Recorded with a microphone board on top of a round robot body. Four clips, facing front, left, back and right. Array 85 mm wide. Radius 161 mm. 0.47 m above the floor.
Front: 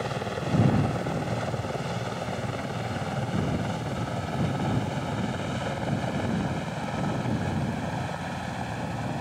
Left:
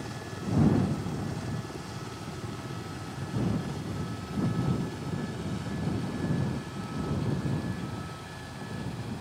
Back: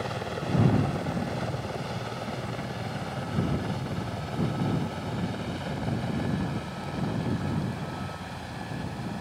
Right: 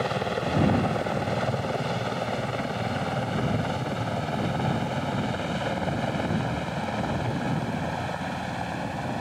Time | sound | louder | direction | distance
0.0 | a helicopter | right 11 dB, front 2 dB | 85° right | ?